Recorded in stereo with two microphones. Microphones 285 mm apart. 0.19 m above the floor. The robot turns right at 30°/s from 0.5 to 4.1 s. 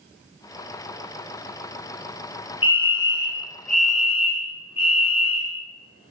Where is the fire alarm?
110° left, 4 m; by 6.1 s 155° left, 4 m.